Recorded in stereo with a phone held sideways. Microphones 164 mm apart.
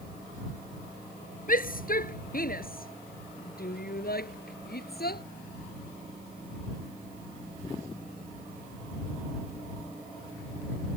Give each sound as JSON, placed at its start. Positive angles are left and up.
{"t": 1.5, "sound": "a shout", "side_deg": 60}